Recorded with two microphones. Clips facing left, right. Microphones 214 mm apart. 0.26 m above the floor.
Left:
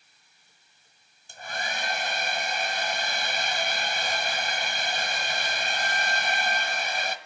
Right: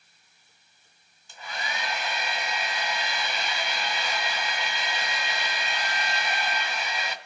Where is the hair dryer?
50° left (ahead or behind), 1.2 m.